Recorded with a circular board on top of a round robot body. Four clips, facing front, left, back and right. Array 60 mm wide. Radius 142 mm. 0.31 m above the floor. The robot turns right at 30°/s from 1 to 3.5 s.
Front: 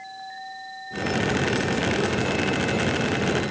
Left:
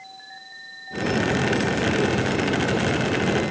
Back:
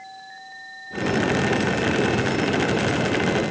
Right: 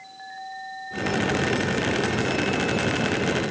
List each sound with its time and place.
Only background noise.